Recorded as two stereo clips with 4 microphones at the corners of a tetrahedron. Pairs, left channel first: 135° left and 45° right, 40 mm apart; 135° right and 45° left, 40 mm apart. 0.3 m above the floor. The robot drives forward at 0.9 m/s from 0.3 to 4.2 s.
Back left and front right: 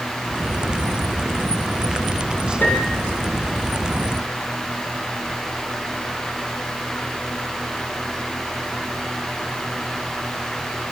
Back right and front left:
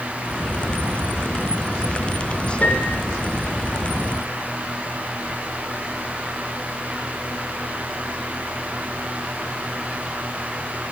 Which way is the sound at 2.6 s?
175° left.